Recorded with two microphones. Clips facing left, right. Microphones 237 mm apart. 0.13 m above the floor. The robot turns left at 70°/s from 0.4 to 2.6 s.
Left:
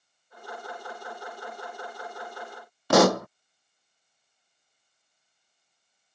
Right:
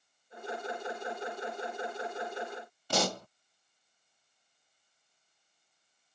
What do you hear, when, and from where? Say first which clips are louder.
2.9 s a pop: left 13 dB; 85° left